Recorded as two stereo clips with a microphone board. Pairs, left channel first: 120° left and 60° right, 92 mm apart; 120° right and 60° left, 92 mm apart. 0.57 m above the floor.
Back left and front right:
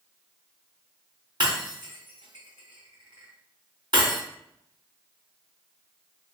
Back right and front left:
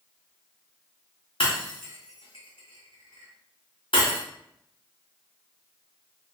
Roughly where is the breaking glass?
Right.